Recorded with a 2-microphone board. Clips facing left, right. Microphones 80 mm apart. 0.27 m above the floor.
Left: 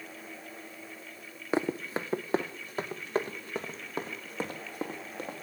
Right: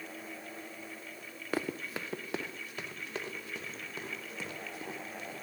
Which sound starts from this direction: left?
Running footsteps, at 1.5 s.